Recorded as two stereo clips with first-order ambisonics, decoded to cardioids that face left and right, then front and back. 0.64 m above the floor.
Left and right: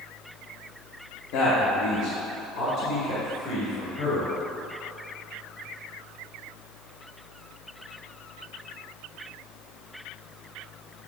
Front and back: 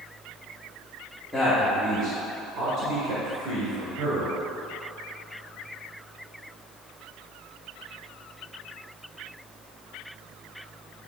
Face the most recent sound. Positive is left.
turn(degrees=145)